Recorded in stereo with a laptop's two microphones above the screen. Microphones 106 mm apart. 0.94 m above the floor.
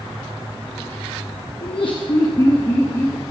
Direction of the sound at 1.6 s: 55° left (ahead or behind).